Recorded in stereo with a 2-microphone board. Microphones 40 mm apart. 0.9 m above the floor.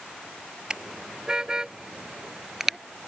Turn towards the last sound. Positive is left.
turn(degrees=-5)  # may be behind; listen again after turning